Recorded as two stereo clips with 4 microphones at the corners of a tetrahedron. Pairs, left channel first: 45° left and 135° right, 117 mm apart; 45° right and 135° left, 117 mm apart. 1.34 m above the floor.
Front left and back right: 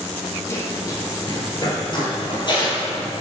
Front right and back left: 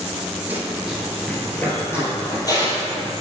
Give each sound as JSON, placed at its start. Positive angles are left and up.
{"t": 0.5, "sound": "running footsteps", "azimuth_deg": 80, "distance_m": 1.4}